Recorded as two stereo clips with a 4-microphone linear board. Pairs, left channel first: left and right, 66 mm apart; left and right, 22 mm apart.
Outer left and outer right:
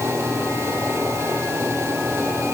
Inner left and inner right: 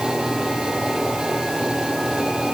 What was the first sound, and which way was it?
Only background noise.